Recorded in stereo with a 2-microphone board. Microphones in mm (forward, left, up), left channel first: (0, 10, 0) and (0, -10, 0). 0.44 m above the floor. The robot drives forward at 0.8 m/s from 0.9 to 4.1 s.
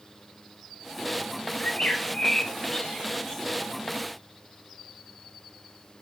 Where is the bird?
65° left (ahead or behind), 1.1 m; by 3.5 s 25° left (ahead or behind), 2 m.